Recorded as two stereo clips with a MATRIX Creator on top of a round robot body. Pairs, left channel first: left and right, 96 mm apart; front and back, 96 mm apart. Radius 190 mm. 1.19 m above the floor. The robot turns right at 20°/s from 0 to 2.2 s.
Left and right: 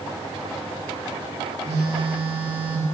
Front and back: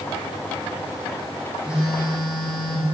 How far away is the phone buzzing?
About 2.5 m.